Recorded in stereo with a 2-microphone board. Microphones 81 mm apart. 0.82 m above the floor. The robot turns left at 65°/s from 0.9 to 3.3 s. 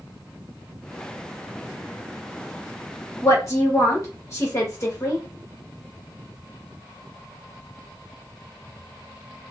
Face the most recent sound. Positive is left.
turn(degrees=35)  # may be behind; listen again after turning